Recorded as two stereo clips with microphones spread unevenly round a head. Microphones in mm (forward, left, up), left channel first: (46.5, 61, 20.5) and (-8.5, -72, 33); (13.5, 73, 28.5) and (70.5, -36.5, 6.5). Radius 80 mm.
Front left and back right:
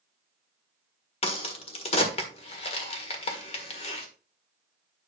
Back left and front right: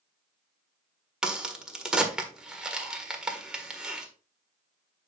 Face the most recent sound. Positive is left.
turn(degrees=30)